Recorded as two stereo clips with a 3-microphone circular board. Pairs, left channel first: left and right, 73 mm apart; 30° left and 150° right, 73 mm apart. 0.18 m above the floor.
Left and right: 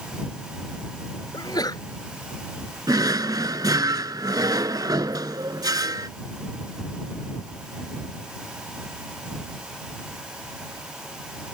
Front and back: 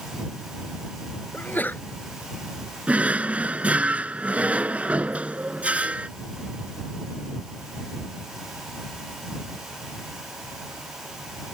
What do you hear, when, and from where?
1.3 s a sneeze: 90° left
2.9 s a drawer: 80° right